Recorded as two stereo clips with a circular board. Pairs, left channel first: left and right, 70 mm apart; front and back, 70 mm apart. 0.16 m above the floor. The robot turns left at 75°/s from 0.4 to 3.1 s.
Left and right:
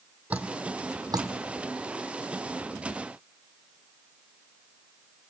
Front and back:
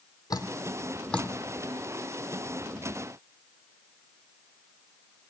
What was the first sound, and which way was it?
Dripping, 20° right.